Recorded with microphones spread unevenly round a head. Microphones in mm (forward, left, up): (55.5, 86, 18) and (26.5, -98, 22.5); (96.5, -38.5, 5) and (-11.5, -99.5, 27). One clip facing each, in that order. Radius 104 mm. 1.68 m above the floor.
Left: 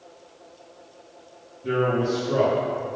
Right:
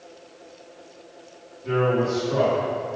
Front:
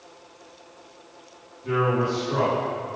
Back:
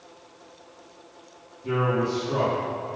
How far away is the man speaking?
About 1.8 m.